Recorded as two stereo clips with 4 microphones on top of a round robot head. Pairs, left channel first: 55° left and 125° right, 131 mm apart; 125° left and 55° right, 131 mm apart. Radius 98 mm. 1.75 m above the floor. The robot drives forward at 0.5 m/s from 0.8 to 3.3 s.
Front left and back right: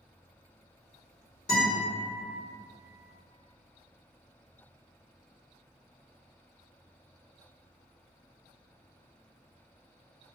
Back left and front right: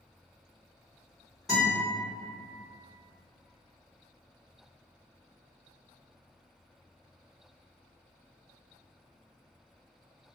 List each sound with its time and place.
1.5 s a guitar: 35° left, 1.5 m; by 1.8 s 45° left, 1.4 m